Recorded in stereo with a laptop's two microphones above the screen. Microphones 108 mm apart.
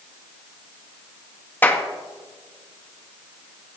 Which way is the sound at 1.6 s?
20° left (ahead or behind).